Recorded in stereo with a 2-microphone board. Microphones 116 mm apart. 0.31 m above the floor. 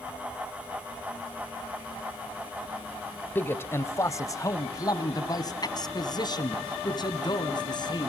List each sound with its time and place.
3.4 s a man speaking: 15° left (ahead or behind), 1.1 m; by 8.1 s 40° left (ahead or behind), 3.5 m